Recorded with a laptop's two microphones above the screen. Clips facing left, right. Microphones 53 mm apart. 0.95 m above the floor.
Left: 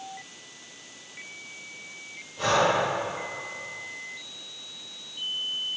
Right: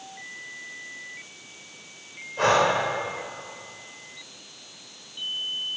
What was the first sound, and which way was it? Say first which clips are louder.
Breathing: right 2 dB; 80° right.